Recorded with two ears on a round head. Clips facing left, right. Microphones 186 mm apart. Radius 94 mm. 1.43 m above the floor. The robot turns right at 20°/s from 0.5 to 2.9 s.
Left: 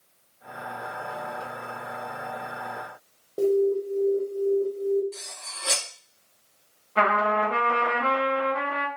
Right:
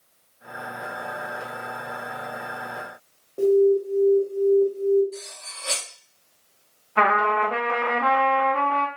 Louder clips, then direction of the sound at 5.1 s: Right 6 dB; 65° left (ahead or behind).